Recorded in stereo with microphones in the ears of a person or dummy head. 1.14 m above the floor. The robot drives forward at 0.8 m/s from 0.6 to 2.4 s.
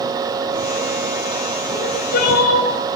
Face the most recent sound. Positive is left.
turn(degrees=55)  # may be behind; listen again after turning